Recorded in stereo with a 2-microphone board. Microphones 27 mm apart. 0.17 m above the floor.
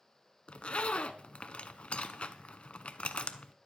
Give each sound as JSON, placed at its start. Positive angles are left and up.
{"t": 0.5, "sound": "a zipper", "side_deg": 50, "distance_m": 0.7}